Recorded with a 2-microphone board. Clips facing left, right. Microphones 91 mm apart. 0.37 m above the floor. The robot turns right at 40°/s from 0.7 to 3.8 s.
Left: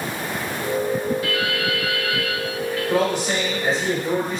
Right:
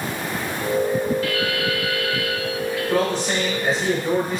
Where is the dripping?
125° left, 1.0 m; by 2.8 s 170° right, 1.0 m.